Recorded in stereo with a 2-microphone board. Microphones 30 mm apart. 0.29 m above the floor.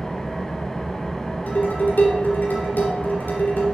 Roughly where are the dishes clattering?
Left.